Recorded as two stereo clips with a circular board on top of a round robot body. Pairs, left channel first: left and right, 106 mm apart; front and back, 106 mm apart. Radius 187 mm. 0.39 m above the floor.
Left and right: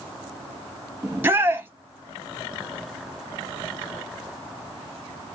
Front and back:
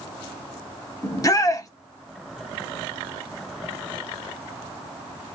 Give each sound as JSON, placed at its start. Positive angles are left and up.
{"t": 1.0, "sound": "a shout", "azimuth_deg": -35, "distance_m": 1.0}